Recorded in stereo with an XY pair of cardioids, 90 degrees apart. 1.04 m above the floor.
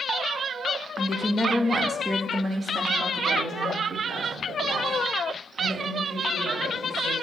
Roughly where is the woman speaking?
Ahead left.